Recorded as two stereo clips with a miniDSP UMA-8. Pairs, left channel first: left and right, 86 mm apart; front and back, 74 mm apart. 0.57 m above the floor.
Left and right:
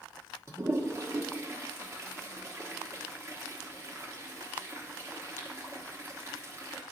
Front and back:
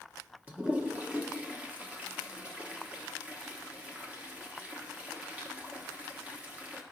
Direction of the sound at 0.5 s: 120° right.